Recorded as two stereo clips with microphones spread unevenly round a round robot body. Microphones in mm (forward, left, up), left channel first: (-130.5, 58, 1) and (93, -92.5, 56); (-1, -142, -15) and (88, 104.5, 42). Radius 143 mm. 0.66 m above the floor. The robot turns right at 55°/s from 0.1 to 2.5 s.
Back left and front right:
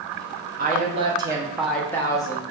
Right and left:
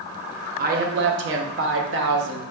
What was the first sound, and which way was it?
A woman speaking, 15° left.